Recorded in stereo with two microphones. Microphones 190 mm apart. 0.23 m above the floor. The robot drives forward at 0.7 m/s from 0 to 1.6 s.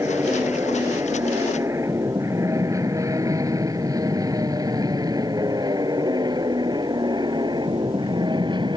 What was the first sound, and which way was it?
An aircraft, 15° right (ahead or behind).